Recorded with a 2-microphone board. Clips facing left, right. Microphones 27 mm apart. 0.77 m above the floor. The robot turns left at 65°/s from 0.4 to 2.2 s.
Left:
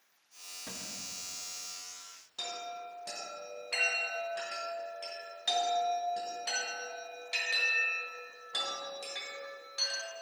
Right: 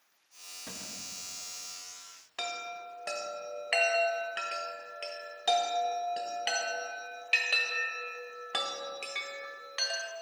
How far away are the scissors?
No scissors in this recording.